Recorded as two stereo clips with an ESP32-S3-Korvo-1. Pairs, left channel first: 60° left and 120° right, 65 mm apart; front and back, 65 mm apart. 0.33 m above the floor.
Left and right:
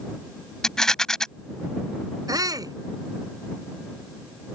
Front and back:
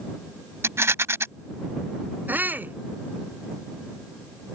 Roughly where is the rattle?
Behind left.